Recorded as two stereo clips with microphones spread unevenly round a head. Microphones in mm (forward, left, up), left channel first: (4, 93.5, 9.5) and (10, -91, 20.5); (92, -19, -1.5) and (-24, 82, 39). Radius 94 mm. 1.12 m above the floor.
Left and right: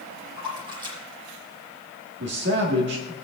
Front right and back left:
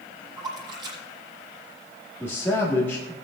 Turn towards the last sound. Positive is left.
turn(degrees=-120)